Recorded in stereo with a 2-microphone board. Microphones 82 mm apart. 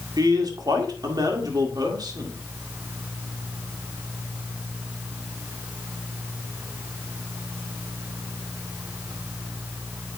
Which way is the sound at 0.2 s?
55° right (ahead or behind).